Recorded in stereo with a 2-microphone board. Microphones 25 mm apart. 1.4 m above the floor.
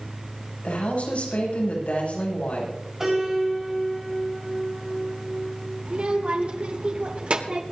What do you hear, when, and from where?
0.6 s a woman speaking: 55° left (ahead or behind), 8 m
3.0 s a piano: 20° right (ahead or behind), 5 m
5.8 s a child speaking: 55° right (ahead or behind), 2.5 m